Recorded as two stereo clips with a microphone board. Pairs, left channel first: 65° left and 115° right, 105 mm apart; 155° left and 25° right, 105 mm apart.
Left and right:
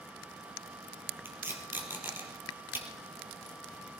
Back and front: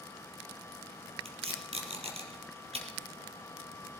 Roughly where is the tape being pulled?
Ahead right.